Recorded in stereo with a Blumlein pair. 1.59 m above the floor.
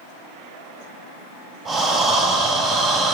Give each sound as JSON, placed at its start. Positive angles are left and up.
{"t": 1.6, "sound": "breathing", "azimuth_deg": -5, "distance_m": 2.5}